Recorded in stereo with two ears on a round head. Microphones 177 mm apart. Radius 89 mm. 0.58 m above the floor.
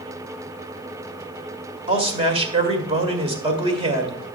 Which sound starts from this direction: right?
A man speaking, at 1.9 s.